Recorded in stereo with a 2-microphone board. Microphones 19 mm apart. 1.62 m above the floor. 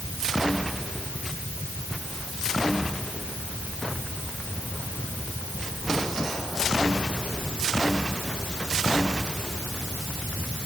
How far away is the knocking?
I don't hear knocking.